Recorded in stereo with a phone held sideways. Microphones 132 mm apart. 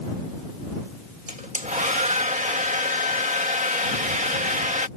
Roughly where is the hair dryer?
Right.